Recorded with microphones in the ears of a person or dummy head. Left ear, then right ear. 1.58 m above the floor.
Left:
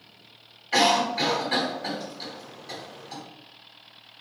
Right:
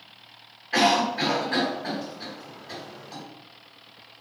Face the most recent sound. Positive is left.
turn(degrees=80)